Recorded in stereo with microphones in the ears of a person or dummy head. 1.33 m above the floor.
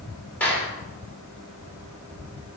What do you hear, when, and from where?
0.4 s a clap: 5° left (ahead or behind), 4 m